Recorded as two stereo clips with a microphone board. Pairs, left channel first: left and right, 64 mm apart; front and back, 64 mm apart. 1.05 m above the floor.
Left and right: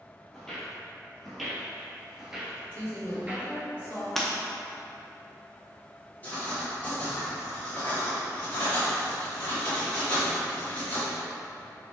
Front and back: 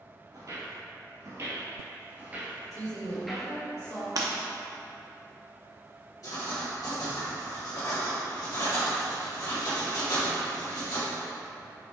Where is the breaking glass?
175° left, 0.7 m.